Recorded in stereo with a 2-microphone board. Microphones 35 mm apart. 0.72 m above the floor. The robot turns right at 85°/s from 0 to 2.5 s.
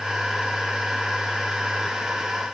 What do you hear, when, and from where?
Only background noise.